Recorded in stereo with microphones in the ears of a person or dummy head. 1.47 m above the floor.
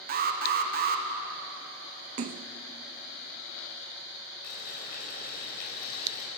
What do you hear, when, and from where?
0.1 s an alarm: 40° right (ahead or behind), 1.6 m
2.2 s a splash: 40° right (ahead or behind), 0.8 m
4.4 s boiling: 60° left (ahead or behind), 5.5 m